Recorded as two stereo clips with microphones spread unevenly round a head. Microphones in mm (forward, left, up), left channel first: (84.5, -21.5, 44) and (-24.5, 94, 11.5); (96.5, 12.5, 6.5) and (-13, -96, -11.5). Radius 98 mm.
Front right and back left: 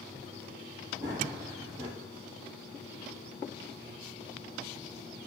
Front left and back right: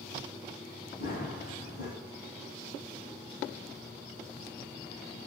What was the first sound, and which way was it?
Running footsteps, 60° left.